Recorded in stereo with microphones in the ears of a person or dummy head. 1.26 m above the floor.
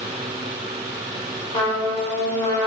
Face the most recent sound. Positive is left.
turn(degrees=30)  # may be behind; listen again after turning